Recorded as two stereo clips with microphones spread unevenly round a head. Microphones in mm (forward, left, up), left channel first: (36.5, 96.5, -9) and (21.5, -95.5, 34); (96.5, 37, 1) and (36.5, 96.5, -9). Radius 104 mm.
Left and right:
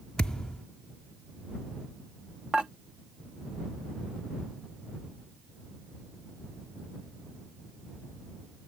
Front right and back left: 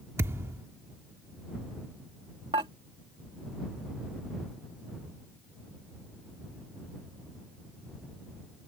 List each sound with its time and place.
0.2 s a thud: 170° right
2.5 s dishes clattering: 175° right